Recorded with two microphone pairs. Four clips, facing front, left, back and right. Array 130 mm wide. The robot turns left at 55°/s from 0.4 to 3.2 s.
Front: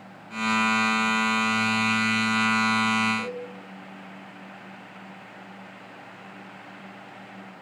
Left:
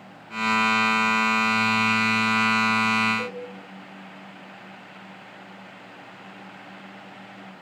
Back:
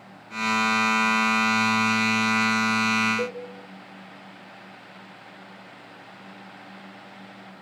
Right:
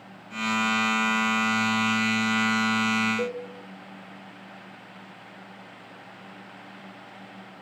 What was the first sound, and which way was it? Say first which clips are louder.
A cowbell: right 3 dB, back 3 dB; 145° right.